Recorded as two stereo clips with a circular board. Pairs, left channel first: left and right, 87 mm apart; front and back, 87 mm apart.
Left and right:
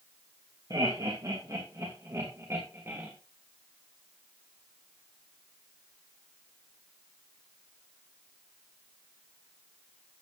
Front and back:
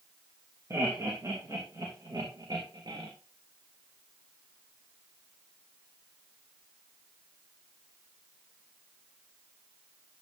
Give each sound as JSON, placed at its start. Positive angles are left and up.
{"t": 0.7, "sound": "laughter", "azimuth_deg": -125, "distance_m": 3.0}